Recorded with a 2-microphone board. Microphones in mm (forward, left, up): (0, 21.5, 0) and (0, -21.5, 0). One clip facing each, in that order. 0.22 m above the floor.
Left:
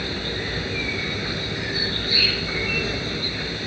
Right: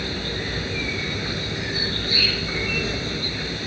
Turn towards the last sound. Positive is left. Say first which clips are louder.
# even
turn(degrees=5)  # may be behind; listen again after turning